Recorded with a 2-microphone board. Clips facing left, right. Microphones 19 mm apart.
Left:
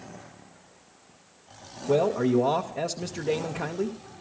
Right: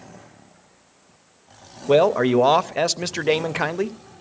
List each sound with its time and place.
1.9 s a man speaking: 65° right (ahead or behind), 0.5 m